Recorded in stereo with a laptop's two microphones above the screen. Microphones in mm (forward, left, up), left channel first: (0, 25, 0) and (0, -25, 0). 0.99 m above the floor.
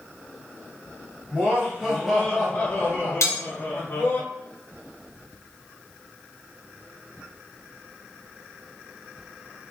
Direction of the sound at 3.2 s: 75° left (ahead or behind).